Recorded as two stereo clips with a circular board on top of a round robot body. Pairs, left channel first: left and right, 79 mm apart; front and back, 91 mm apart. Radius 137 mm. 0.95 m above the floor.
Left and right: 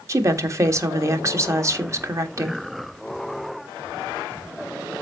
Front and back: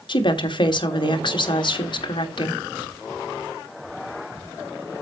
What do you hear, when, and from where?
0.1 s a woman speaking: 35° right, 1.8 m